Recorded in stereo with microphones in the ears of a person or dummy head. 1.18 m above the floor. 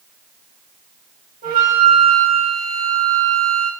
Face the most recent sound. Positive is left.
turn(degrees=-40)  # may be behind; listen again after turning